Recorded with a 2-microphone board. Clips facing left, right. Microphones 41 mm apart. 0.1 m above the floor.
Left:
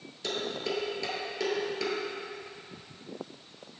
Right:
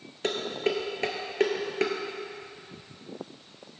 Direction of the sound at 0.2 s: 45° right (ahead or behind).